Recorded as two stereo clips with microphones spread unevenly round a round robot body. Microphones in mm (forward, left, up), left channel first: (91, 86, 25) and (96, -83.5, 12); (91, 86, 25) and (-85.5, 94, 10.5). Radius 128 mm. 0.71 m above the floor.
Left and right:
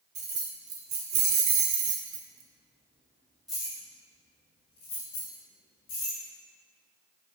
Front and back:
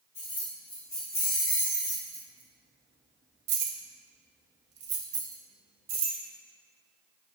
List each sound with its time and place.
0.1 s keys jangling: 70° right, 1.5 m; by 6.2 s 150° left, 1.9 m